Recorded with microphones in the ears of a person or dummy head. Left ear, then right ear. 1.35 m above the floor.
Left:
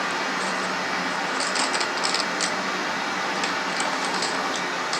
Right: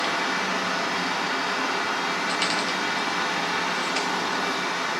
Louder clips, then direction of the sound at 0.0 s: Right 1 dB; 10° right (ahead or behind).